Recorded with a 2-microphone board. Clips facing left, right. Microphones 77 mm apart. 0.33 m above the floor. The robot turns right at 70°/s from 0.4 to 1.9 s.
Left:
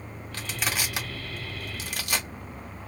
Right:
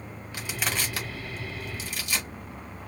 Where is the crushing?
15° right (ahead or behind), 1.3 m; by 2.3 s 60° left (ahead or behind), 1.3 m.